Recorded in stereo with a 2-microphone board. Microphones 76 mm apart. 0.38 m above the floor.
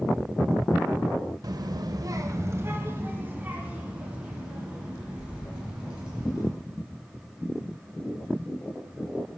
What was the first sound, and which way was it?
A child speaking, 55° right (ahead or behind).